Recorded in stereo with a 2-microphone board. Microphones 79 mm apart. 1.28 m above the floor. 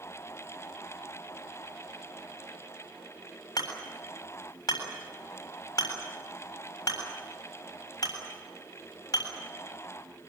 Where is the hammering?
50° left (ahead or behind), 7 m.